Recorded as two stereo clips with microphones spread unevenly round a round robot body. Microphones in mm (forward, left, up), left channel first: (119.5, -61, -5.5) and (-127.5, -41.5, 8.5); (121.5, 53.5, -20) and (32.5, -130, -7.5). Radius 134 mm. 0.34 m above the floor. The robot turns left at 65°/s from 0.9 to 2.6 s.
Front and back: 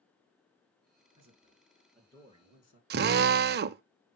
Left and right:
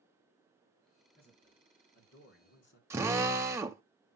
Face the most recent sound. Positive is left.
turn(degrees=170)